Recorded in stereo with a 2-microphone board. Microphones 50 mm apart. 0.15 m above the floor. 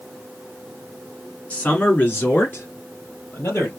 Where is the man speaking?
25° left (ahead or behind), 1.4 m; by 3.7 s 55° left (ahead or behind), 3 m.